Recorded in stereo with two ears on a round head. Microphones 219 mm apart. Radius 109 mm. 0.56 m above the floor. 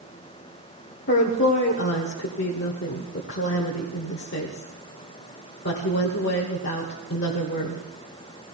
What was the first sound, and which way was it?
A woman speaking, 50° left (ahead or behind).